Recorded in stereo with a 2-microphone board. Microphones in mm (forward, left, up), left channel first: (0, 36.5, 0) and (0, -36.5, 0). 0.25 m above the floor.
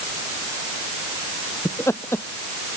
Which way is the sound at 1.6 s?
35° left (ahead or behind).